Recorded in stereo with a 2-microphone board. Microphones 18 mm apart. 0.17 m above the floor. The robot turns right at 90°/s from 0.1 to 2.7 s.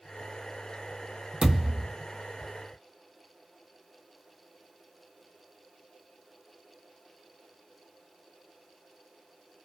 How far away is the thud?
About 1.4 m.